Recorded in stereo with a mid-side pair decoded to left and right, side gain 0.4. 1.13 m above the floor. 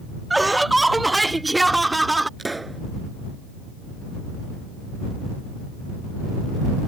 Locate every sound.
0.3 s laughter: 15° right
2.4 s a pop: 15° right